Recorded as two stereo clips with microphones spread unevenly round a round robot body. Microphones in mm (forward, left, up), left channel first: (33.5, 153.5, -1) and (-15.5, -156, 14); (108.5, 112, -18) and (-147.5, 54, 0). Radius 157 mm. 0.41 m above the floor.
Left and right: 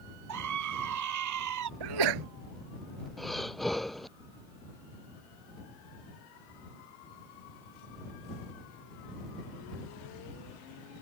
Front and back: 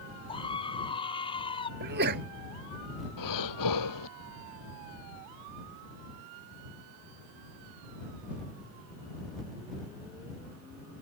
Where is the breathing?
10° right.